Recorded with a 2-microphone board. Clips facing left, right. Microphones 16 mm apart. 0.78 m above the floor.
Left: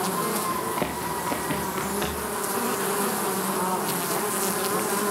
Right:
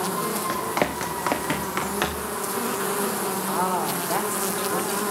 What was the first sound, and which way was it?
Running footsteps, 65° right (ahead or behind).